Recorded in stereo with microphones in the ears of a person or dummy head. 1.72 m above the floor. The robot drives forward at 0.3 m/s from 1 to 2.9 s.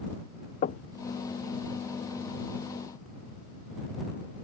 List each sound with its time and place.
0.6 s knocking: 40° left (ahead or behind)